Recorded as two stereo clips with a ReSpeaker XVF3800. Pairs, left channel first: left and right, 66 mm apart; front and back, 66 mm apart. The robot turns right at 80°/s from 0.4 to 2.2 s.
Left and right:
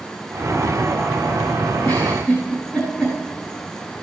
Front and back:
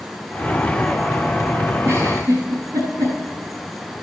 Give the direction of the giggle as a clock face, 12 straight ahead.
7 o'clock.